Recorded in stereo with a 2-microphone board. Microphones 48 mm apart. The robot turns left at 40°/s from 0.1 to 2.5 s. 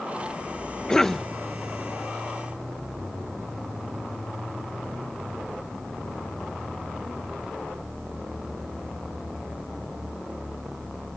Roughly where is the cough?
Centre.